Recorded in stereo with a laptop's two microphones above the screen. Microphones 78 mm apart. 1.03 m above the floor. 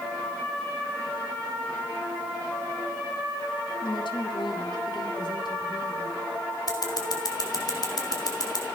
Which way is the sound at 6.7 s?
55° left (ahead or behind).